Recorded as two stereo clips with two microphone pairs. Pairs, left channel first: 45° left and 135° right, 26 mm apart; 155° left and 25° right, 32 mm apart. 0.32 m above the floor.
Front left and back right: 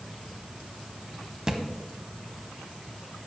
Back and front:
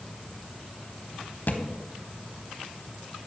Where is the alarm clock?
No alarm clock in this recording.